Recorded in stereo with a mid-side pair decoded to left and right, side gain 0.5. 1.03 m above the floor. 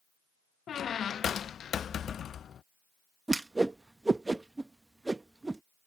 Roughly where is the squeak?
Ahead left.